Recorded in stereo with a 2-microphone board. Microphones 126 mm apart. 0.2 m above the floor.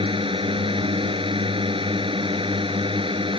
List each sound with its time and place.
0.0 s a drone: 45° right (ahead or behind)